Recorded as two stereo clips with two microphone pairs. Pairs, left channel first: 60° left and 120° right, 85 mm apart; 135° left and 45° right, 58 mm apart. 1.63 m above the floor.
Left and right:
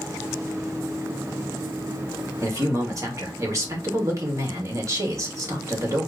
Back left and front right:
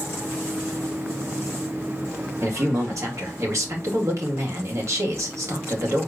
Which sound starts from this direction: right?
A man speaking, at 2.4 s.